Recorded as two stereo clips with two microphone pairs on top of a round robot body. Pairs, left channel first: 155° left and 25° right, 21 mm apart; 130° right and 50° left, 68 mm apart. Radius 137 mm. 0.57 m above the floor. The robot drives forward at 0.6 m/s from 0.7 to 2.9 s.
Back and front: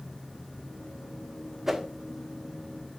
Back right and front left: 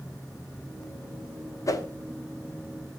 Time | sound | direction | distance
1.7 | a whoosh | 95° right | 1.2 m